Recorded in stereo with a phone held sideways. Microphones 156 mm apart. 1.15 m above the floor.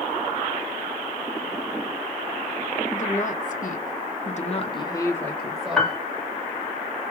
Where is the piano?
5° left (ahead or behind), 1.0 m.